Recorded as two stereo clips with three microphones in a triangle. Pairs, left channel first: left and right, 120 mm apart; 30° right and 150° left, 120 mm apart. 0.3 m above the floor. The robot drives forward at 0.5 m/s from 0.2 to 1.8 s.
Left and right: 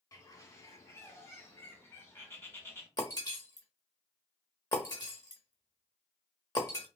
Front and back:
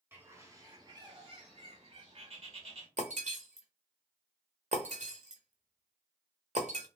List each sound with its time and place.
0.1 s a bird: 100° left, 0.9 m; by 2.9 s 155° left, 1.2 m
3.0 s breaking glass: 145° left, 1.1 m